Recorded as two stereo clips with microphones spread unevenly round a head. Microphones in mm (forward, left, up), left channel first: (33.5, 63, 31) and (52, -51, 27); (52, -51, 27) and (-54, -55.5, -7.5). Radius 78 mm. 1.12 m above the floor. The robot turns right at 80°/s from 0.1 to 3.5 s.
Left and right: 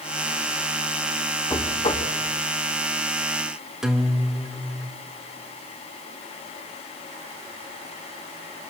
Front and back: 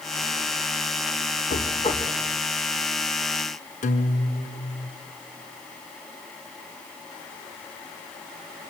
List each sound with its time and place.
1.5 s knocking: 35° left, 3 m; by 2.1 s 85° left, 3 m
3.8 s a guitar: 5° left, 2 m